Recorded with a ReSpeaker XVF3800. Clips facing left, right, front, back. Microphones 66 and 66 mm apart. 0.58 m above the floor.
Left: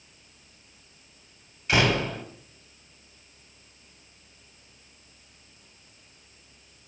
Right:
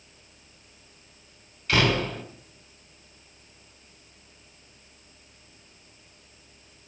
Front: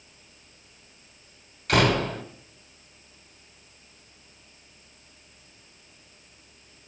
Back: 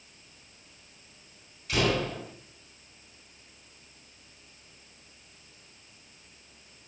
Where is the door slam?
20° left, 2.0 m.